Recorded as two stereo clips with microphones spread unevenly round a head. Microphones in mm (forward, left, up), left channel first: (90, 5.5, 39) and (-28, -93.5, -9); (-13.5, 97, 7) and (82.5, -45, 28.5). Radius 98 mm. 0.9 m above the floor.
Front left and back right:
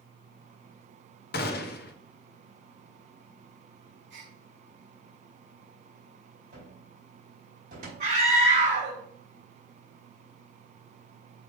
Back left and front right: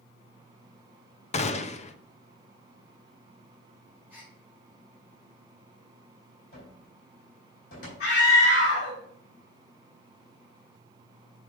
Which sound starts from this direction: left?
A gunshot, at 1.3 s.